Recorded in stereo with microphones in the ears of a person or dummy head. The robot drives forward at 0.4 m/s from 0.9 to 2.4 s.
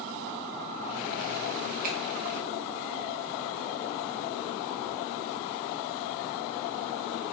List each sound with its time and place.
1.8 s a finger snap: 45° right (ahead or behind), 0.9 m; by 2.0 s 50° right (ahead or behind), 0.8 m